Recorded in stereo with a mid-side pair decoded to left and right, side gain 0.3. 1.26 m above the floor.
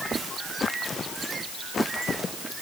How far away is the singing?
I don't hear singing.